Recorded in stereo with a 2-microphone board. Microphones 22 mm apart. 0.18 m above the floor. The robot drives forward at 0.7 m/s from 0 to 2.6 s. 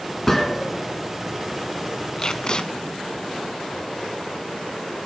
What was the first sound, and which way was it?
A gunshot, 10° left (ahead or behind).